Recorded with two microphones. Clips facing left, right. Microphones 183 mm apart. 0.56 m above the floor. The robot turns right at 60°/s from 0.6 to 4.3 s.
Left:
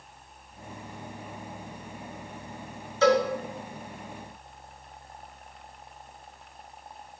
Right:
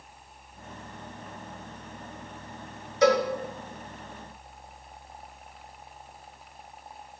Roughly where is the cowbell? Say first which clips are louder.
Even; centre.